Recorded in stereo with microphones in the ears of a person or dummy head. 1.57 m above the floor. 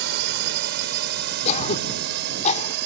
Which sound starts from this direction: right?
A drone, at 0.0 s.